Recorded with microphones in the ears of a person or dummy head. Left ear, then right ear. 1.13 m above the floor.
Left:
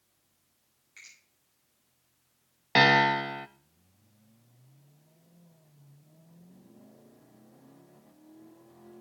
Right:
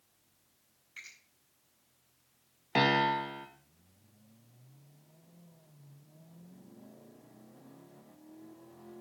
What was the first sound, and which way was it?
A finger snap, 20° right (ahead or behind).